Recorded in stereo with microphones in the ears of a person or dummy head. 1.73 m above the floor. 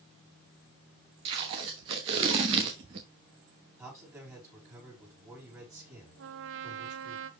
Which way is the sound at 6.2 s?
70° right (ahead or behind).